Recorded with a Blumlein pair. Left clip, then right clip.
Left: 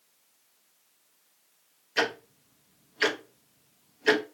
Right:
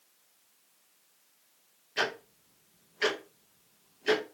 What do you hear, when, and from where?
2.0 s ticking: 20° left, 0.7 m